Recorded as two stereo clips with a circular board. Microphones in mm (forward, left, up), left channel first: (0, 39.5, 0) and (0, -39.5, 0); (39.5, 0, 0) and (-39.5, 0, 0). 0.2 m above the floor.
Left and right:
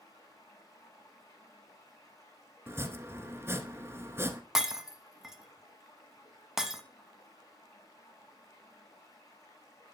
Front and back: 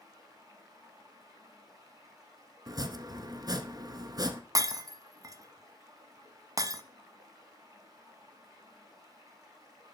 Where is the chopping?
145° right, 1.1 m.